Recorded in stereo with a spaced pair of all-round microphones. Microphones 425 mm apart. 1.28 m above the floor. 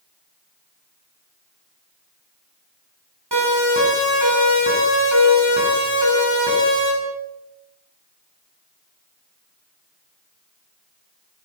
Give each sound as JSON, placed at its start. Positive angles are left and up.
{"t": 3.3, "sound": "a siren", "side_deg": -70, "distance_m": 10.0}